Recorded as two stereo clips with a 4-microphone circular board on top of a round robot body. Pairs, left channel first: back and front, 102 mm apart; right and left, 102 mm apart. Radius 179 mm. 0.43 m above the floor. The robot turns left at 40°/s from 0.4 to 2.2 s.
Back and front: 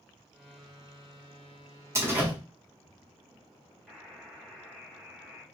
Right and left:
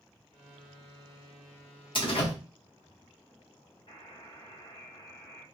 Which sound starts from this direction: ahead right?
A door slam, at 1.9 s.